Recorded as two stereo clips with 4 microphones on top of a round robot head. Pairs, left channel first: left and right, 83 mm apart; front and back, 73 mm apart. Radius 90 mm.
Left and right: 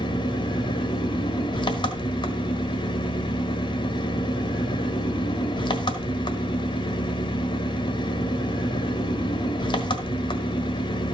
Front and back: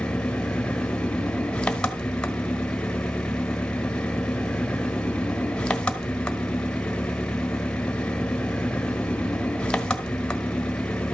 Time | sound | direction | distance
0.0 | an engine running | 75° left | 1.5 m